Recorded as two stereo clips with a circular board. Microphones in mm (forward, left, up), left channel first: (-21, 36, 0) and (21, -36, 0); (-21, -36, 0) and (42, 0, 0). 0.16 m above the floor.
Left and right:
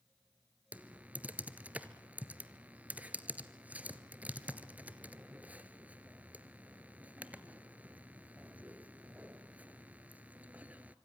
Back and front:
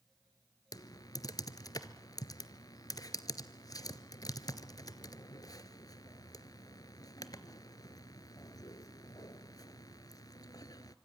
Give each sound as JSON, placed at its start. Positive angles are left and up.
{"t": 0.7, "sound": "typing on a keyboard", "azimuth_deg": -130, "distance_m": 0.9}